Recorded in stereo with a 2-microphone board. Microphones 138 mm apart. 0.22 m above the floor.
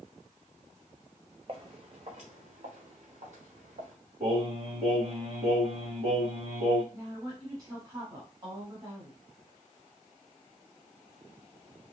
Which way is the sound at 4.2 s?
50° right (ahead or behind).